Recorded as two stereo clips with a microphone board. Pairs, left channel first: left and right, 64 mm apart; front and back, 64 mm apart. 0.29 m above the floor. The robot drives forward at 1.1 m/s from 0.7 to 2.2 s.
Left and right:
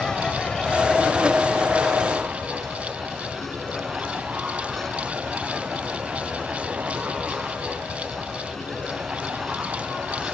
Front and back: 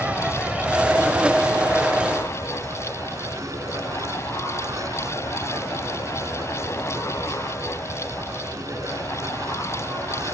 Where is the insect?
150° left; by 10.3 s 175° left.